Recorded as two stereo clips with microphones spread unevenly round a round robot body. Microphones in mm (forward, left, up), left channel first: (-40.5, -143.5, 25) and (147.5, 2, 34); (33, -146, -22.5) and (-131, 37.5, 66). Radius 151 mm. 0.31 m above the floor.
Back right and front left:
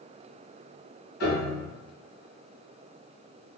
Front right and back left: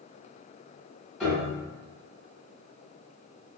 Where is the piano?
125° right, 1.4 m.